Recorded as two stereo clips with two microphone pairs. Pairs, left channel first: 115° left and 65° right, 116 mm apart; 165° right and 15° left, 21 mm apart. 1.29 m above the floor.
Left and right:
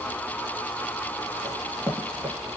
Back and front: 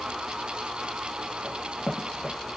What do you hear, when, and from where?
1.4 s running footsteps: 20° left, 1.7 m